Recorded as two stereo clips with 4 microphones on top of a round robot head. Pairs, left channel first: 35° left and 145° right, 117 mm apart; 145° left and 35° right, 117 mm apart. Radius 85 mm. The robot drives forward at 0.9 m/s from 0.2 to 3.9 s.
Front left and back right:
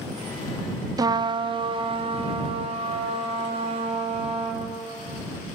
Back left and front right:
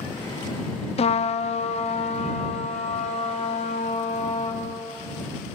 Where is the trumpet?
160° left, 0.5 m; by 4.6 s 175° left, 3 m.